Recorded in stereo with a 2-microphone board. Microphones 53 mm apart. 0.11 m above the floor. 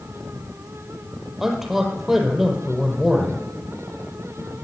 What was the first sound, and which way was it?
A man speaking, 5° right (ahead or behind).